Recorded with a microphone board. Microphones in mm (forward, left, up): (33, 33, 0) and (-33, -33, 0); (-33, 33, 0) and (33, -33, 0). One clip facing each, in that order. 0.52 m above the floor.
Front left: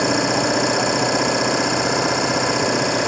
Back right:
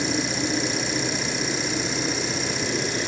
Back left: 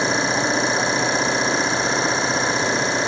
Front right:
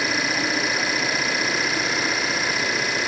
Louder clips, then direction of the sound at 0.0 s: Front left 8 dB, back left 4 dB; 75° left.